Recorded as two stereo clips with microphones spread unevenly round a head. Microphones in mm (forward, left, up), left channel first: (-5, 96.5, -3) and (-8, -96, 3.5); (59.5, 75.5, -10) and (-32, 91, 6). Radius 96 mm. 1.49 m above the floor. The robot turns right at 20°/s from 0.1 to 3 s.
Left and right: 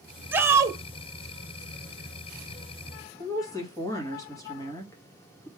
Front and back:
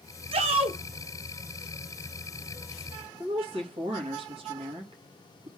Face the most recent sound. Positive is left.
turn(degrees=160)